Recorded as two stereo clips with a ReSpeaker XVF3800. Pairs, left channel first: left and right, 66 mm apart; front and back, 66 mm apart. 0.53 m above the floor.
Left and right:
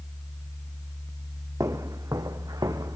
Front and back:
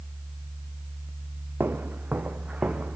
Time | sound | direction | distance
1.6 | footsteps | 120° right | 1.8 m